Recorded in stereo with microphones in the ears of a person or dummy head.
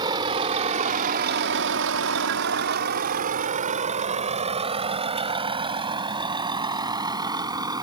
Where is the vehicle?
25° right (ahead or behind).